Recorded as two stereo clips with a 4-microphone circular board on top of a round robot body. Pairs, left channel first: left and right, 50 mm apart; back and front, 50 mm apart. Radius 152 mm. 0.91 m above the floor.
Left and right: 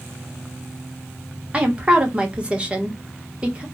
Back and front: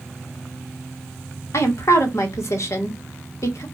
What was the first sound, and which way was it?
A woman speaking, 155° right.